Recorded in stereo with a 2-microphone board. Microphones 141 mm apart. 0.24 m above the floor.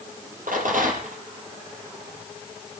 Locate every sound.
0.5 s a rattle: 70° right (ahead or behind), 4.5 m